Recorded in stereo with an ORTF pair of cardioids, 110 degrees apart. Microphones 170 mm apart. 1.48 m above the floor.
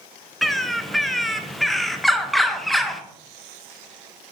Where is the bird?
Straight ahead, 0.6 m.